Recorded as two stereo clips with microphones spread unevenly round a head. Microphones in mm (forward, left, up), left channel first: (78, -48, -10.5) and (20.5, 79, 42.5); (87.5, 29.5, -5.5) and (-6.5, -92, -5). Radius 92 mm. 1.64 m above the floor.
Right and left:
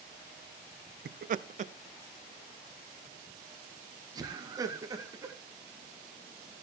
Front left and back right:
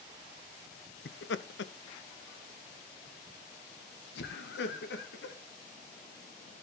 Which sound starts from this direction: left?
Laughter, at 1.1 s.